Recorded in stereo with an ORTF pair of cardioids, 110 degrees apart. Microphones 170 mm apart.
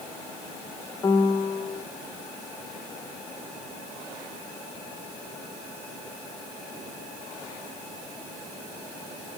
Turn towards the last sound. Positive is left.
turn(degrees=25)